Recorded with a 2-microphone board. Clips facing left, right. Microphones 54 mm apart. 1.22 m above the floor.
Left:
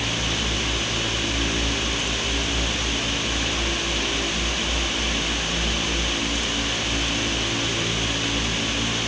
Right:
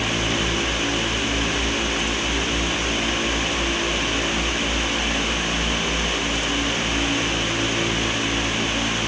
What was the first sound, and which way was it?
Only background noise.